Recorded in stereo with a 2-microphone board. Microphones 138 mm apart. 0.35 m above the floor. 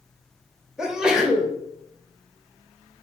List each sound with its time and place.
0.8 s a sneeze: 5° right (ahead or behind), 0.9 m